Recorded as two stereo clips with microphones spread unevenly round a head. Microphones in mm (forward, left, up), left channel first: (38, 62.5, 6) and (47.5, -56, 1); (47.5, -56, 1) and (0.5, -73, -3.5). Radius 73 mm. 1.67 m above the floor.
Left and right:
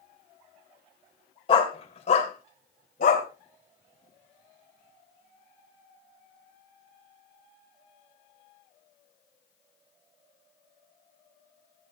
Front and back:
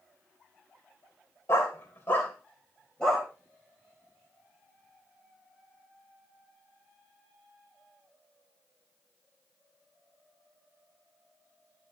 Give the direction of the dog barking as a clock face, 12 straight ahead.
10 o'clock.